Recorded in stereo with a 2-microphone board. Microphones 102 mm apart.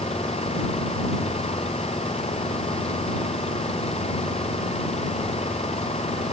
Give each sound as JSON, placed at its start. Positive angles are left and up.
{"t": 0.0, "sound": "an engine running", "side_deg": 80}